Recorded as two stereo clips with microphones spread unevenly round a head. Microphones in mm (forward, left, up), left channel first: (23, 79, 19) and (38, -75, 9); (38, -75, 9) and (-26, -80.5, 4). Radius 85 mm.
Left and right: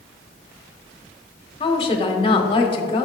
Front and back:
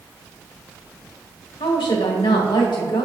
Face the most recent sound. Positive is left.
turn(degrees=35)